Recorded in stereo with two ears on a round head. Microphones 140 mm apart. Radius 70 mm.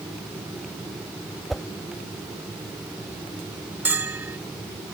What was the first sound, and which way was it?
A whoosh, centre (ahead or behind).